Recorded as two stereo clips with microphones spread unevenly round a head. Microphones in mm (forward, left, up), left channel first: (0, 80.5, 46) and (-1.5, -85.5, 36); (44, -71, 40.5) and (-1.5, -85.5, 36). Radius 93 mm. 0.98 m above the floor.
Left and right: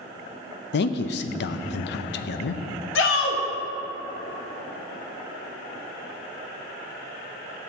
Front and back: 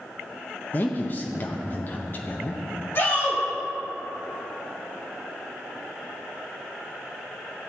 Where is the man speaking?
80° left, 0.6 m.